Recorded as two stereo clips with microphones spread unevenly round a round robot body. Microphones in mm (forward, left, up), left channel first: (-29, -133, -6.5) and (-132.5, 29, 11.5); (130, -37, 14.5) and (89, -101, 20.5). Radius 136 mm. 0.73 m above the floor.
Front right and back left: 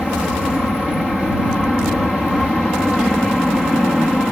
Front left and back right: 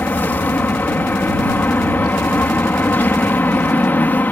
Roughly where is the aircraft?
Ahead left.